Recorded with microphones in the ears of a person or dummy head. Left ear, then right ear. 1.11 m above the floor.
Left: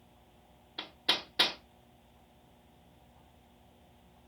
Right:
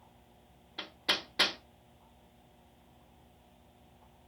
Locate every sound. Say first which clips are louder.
0.8 s hammering: left 1 dB; centre (ahead or behind), 1.1 m